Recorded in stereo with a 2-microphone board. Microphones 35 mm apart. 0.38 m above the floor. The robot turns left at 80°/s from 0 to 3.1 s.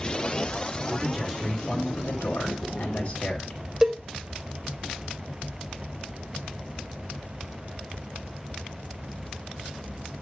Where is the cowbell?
20° right (ahead or behind), 1.0 m.